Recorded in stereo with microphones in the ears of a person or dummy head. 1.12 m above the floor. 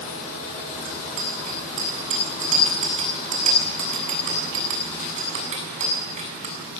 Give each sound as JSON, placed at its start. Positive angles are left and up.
{"t": 0.8, "sound": "a bicycle bell", "side_deg": -35, "distance_m": 7.0}